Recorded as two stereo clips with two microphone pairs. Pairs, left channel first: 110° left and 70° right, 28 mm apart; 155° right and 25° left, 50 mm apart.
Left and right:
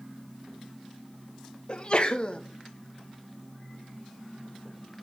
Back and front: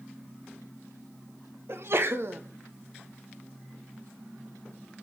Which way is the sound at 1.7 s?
60° left.